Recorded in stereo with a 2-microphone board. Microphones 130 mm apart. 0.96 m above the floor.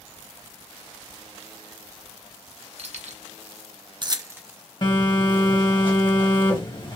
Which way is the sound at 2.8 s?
55° right (ahead or behind).